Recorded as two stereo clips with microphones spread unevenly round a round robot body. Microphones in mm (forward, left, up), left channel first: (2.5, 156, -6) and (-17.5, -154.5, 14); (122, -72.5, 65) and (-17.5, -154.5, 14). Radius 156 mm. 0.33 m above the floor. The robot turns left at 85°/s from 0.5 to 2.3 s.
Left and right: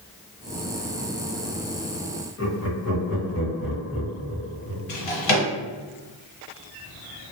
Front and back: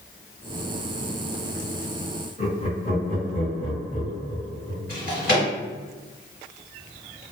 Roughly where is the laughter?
Left.